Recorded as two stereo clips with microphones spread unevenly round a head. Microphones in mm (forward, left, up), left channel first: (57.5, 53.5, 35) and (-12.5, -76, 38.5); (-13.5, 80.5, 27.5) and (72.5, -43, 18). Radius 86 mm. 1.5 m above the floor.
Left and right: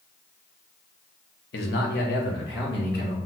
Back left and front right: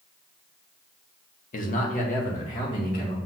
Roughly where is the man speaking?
Left.